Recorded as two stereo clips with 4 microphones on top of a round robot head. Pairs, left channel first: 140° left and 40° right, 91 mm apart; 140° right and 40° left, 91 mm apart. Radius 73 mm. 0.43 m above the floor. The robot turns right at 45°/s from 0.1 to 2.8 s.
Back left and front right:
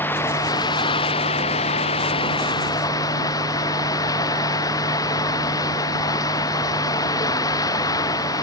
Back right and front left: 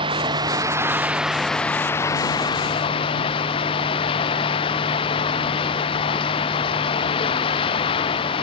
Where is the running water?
70° left; by 8.4 s 170° right.